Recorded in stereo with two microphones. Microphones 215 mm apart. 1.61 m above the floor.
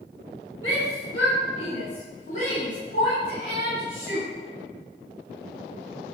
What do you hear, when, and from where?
0.6 s a shout: 85° left, 7.5 m; by 4.3 s 65° left (ahead or behind), 9.5 m